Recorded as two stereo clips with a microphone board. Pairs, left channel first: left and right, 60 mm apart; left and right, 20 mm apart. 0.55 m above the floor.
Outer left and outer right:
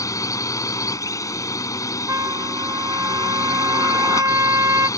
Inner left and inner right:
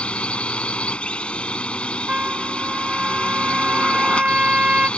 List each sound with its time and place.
0.0 s a drone: 70° left (ahead or behind)
2.1 s a trumpet: 75° right (ahead or behind)